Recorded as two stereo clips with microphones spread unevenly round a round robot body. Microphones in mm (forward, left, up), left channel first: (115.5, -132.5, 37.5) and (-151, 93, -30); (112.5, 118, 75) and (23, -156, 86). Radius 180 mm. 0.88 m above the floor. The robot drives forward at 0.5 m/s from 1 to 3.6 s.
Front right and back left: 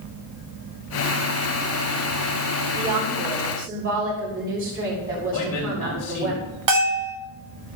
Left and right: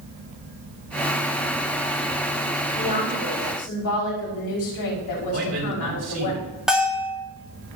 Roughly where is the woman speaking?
Left.